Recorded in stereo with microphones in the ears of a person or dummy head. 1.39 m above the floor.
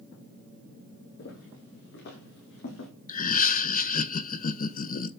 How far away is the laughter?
About 0.7 m.